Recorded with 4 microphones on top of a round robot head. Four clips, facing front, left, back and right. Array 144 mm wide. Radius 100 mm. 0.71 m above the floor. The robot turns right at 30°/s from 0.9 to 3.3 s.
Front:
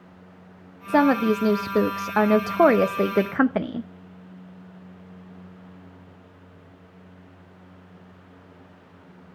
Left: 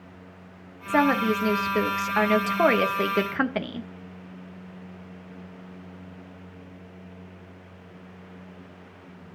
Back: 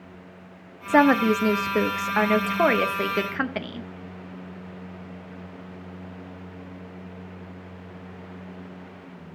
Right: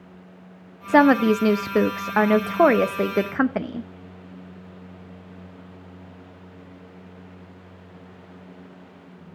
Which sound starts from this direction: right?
A woman speaking, at 0.9 s.